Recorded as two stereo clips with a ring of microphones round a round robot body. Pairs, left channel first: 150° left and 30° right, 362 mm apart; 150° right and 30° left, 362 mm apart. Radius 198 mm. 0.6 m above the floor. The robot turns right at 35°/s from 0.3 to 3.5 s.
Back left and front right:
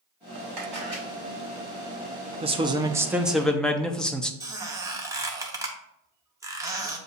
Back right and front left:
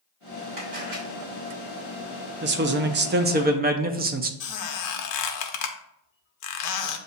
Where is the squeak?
110° right, 0.7 m.